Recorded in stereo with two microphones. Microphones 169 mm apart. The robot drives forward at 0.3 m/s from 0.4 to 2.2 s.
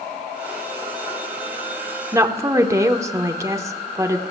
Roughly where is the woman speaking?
Centre.